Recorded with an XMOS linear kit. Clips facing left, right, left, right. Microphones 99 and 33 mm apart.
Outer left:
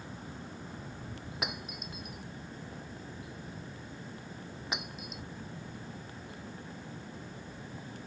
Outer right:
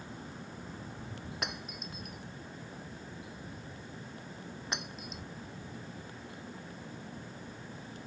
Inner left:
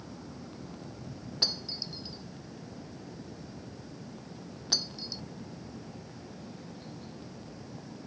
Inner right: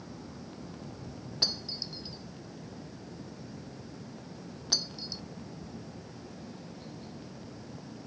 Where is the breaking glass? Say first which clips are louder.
Outer left 2 dB, even; 5° left (ahead or behind).